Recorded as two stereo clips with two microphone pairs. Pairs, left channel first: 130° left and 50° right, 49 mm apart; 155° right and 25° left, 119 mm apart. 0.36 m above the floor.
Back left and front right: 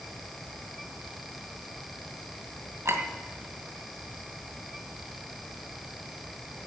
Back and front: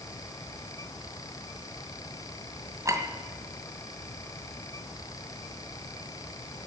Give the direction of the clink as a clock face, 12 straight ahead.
1 o'clock.